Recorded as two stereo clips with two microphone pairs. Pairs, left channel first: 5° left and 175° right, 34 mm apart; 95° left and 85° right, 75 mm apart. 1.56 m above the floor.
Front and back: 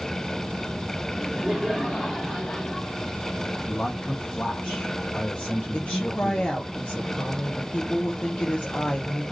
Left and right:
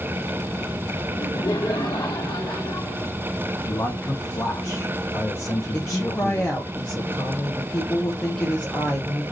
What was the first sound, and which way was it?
Laughter, 115° left.